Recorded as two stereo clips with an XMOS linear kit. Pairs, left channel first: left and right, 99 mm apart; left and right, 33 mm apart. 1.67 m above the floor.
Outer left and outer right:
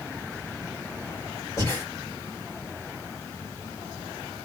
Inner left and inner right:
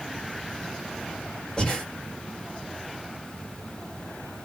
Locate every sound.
1.6 s breathing: 25° left (ahead or behind), 1.7 m